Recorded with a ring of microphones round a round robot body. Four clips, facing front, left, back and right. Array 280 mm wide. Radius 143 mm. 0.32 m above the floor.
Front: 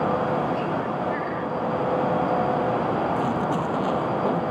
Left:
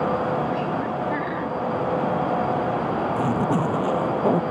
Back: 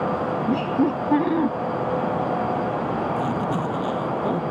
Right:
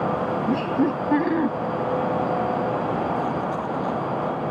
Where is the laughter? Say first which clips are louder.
Right 3 dB, back 4 dB; 140° right.